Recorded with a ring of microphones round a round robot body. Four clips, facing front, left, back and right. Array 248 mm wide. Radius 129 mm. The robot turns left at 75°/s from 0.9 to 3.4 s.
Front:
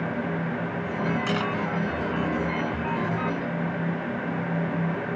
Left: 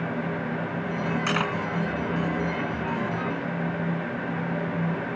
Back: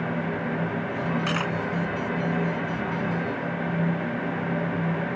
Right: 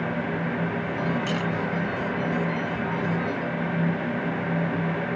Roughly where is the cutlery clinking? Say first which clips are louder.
Left 1 dB, front 1 dB; behind left.